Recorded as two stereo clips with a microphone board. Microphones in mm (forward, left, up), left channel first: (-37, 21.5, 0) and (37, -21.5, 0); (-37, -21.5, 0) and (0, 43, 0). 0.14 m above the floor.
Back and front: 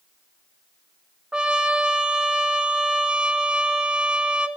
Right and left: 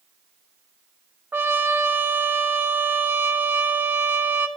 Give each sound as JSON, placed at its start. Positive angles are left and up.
{"t": 1.3, "sound": "a trumpet", "azimuth_deg": 35, "distance_m": 0.5}